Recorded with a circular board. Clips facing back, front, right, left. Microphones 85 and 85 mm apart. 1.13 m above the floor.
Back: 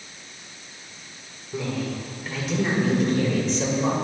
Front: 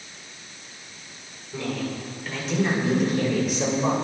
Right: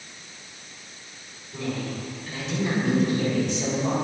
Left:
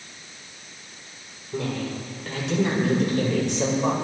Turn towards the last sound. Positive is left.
turn(degrees=75)